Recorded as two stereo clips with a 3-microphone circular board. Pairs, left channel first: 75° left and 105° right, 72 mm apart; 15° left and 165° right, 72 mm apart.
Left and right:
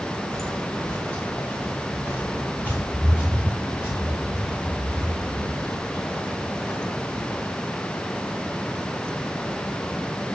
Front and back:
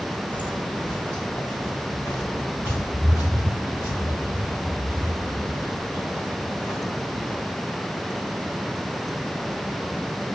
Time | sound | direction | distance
0.3 | footsteps | 55° right | 2.5 m